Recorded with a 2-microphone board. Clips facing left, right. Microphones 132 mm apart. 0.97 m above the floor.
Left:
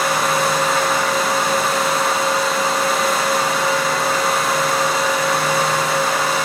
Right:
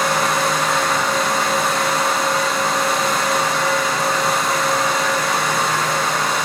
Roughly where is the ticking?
I don't hear ticking.